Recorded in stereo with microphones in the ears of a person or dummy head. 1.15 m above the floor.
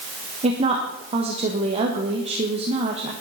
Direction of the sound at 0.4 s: 35° right (ahead or behind).